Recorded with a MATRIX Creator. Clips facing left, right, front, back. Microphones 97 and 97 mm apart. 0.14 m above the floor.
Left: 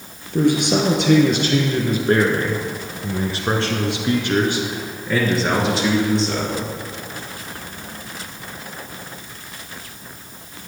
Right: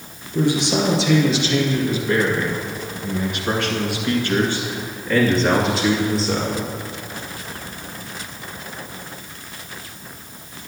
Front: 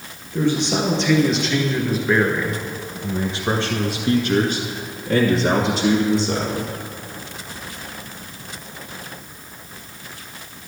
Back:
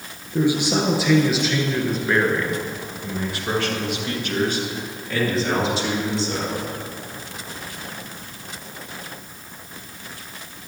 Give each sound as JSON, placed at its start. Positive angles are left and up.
{"t": 0.3, "sound": "a man speaking", "azimuth_deg": 105, "distance_m": 2.0}